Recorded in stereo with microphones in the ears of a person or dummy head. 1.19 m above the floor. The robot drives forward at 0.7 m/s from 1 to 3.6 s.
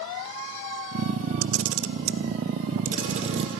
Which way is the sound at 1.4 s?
80° right.